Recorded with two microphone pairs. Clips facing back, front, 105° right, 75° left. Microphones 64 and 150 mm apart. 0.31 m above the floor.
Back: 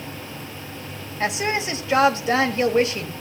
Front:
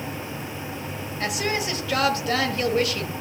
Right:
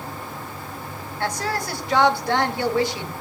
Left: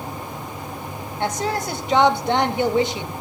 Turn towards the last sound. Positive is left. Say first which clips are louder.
# back 3 dB, left 2 dB
turn(degrees=130)